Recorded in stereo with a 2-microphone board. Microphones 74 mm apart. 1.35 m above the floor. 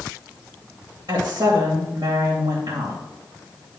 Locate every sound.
1.1 s a woman speaking: 65° right (ahead or behind), 2.5 m